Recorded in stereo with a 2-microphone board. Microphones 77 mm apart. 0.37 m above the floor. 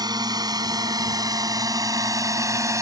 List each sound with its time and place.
0.0 s a drone: 60° right (ahead or behind); by 2.8 s 40° right (ahead or behind)